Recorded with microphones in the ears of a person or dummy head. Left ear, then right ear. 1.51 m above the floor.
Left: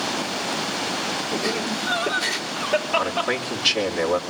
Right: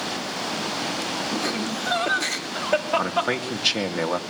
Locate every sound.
1.3 s laughter: 60° right (ahead or behind), 5.5 m
3.0 s a man speaking: 70° right (ahead or behind), 2.5 m